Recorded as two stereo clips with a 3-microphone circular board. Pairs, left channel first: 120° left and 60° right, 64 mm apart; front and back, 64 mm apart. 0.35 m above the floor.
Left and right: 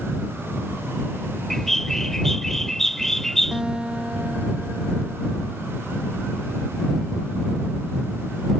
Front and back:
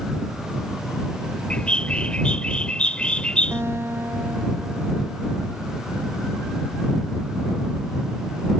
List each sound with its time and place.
1.5 s a bird: 45° left
3.5 s a guitar: 135° right